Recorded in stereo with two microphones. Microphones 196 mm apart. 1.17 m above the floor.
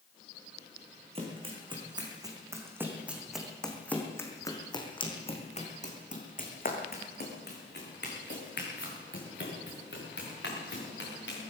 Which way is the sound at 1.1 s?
30° right (ahead or behind).